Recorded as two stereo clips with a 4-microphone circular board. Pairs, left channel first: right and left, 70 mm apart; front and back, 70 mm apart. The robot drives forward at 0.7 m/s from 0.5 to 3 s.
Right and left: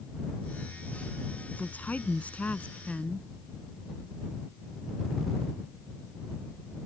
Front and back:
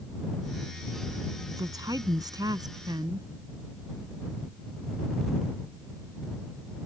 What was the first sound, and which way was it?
A woman speaking, 155° right.